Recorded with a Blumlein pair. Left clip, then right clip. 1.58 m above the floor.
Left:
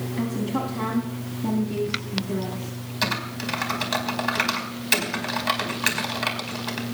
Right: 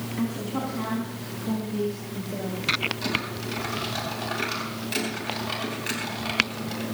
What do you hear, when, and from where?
0.2 s a woman speaking: 10° left, 3.5 m; by 2.8 s 45° left, 5 m
3.0 s typing on a keyboard: 35° left, 5 m